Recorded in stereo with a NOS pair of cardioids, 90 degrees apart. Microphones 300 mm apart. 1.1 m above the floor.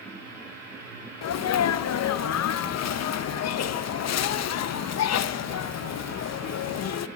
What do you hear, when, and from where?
0.0 s a machine running: 60° right, 8.5 m
1.2 s a sneeze: 60° left, 0.9 m